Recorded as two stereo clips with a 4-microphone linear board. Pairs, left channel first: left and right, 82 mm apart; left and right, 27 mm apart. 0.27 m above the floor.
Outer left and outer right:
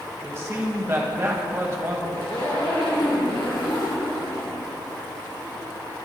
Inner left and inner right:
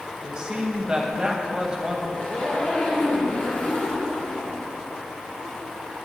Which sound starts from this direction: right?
A man speaking, at 0.2 s.